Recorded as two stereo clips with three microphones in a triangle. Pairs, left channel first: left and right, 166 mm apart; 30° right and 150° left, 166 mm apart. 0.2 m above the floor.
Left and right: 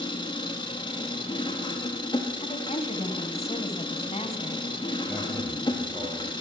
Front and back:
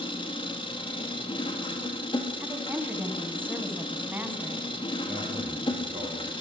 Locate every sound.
0.0 s an engine running: 25° left, 1.7 m
2.4 s a woman speaking: 80° left, 1.6 m
5.1 s a man speaking: 175° right, 6.5 m